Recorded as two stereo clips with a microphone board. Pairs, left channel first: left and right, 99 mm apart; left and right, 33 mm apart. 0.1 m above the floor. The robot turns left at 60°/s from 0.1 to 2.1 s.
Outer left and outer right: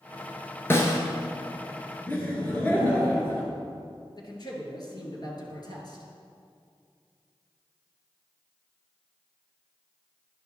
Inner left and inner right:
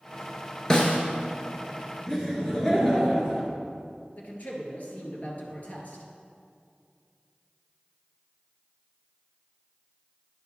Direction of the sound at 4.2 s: 45° left (ahead or behind).